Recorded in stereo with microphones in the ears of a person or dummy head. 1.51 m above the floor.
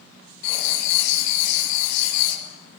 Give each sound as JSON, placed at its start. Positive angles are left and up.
{"t": 0.4, "sound": "writing", "side_deg": 60, "distance_m": 6.5}